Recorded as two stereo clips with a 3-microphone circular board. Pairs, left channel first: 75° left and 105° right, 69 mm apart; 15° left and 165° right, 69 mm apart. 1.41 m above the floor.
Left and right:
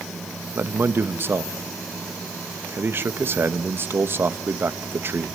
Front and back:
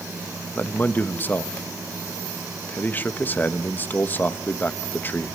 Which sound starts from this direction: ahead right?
A man speaking, at 0.6 s.